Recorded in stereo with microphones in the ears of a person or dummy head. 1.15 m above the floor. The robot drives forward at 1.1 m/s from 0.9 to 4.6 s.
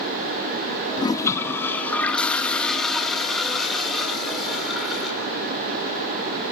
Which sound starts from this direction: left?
A toilet flushing, at 1.0 s.